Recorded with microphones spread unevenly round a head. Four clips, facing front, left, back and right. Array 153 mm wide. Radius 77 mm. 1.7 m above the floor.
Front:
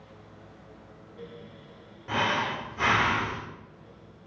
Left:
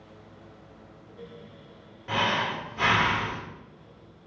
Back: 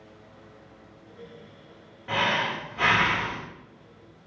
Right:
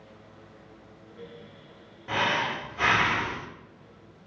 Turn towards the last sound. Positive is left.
turn(degrees=-155)